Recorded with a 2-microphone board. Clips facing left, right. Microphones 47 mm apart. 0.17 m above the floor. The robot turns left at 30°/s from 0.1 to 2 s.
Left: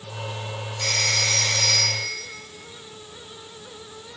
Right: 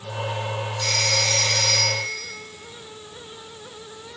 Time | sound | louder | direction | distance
0.8 | a phone ringing | even | 40° left | 3.5 m